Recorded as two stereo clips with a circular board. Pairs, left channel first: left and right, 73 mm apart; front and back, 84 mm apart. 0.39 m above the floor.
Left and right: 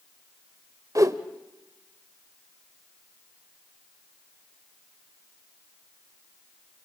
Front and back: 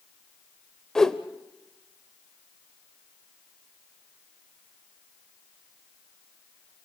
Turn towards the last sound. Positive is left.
turn(degrees=-80)